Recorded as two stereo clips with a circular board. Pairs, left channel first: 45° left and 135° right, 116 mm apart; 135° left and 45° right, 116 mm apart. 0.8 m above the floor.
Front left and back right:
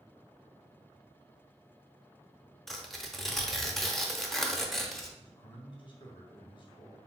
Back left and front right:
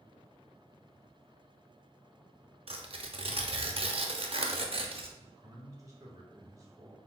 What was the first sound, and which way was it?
Tearing paper, 40° right.